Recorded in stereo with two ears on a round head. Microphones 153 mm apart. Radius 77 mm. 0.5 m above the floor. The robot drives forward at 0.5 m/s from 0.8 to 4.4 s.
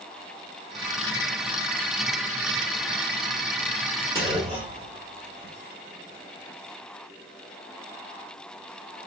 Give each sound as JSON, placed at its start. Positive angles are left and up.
{"t": 4.2, "sound": "a clunk", "side_deg": -25, "distance_m": 1.5}